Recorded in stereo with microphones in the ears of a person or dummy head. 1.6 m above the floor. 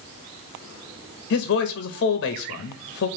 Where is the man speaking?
60° left (ahead or behind), 0.6 m.